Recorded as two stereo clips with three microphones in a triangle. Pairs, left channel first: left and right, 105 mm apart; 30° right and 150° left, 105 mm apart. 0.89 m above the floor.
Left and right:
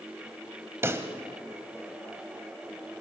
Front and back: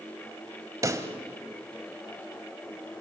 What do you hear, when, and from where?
0.8 s a pop: 155° right, 1.3 m